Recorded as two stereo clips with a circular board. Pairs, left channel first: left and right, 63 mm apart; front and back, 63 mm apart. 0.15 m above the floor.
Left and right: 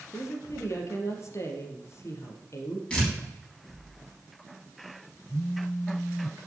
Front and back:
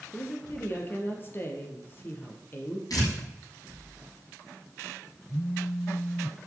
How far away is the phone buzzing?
About 0.7 m.